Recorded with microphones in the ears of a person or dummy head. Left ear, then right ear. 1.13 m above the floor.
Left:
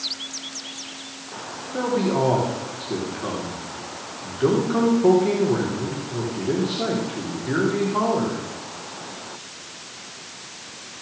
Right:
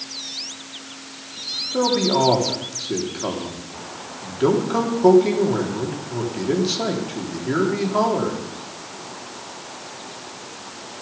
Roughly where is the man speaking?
Right.